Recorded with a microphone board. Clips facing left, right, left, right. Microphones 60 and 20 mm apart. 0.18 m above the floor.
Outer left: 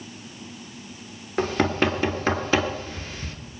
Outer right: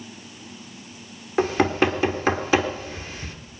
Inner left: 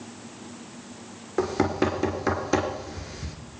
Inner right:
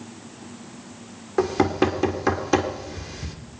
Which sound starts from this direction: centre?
Knocking, at 1.4 s.